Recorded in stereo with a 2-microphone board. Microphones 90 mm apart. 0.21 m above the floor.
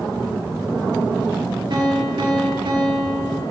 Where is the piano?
55° right (ahead or behind), 1.7 m.